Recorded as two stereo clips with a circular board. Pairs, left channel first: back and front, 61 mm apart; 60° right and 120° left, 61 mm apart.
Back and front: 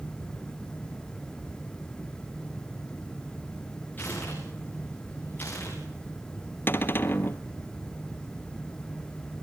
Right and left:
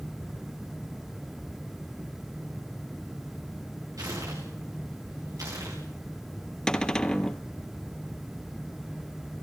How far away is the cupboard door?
About 1.0 m.